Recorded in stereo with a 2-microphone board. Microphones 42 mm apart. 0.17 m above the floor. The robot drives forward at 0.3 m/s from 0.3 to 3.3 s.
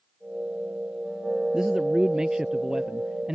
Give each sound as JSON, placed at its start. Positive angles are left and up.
{"t": 1.5, "sound": "a man speaking", "side_deg": -20}